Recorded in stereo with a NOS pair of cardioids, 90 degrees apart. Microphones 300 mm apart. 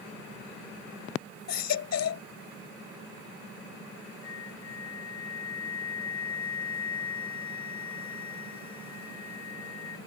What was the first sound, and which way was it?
A baby crying, 60° left.